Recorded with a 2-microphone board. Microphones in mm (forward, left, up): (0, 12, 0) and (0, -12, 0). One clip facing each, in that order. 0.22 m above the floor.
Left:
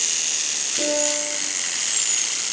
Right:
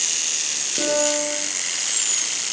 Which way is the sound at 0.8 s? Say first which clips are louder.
Right 3 dB; 50° right (ahead or behind).